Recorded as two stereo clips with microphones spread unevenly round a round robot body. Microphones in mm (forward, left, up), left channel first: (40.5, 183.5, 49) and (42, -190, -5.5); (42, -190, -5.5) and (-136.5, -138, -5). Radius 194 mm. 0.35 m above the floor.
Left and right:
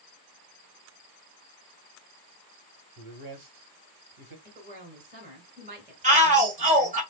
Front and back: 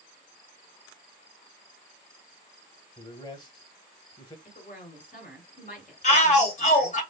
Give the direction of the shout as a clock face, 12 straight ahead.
1 o'clock.